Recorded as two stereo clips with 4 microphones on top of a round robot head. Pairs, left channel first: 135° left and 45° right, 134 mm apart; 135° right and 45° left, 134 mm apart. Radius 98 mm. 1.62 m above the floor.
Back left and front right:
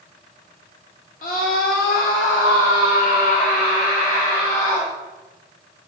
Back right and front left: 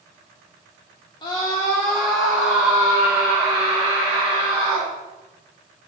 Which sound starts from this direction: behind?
A scream, at 1.2 s.